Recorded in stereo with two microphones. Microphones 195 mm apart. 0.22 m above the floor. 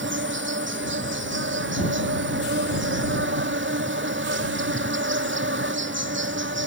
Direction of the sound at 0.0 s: 70° right (ahead or behind).